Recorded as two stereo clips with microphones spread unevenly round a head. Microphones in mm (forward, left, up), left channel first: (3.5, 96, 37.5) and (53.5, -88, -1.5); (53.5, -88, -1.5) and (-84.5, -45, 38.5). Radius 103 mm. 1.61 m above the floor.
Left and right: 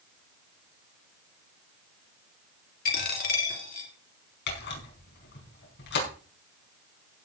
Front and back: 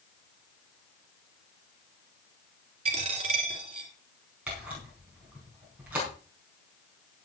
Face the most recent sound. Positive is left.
turn(degrees=85)